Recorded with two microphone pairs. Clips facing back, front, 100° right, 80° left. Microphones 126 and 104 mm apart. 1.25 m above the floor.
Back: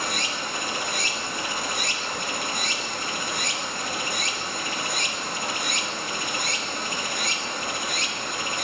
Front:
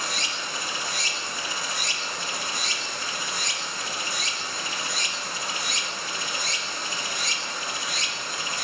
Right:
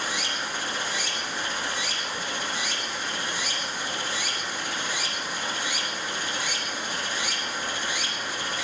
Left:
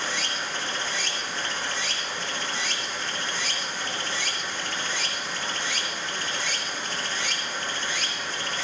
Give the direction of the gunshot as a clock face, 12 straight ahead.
I don't hear a gunshot.